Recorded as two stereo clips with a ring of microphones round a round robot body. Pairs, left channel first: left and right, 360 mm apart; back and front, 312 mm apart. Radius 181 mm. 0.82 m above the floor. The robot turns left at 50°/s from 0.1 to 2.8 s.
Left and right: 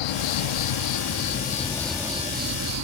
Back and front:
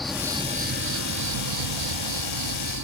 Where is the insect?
90° left; by 2.9 s 45° right.